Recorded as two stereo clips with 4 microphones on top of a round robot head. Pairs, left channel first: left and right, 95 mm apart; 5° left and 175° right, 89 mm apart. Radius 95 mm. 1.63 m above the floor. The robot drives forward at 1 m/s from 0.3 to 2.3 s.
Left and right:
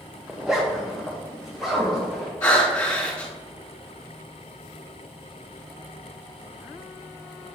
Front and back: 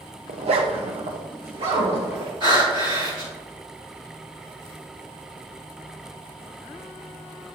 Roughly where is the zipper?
Behind.